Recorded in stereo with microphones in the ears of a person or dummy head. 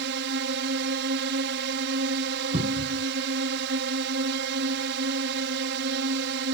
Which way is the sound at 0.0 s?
65° right (ahead or behind).